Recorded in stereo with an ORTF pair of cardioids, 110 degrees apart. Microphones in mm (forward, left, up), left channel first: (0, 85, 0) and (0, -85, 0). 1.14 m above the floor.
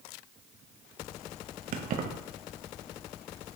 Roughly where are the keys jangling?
Ahead right.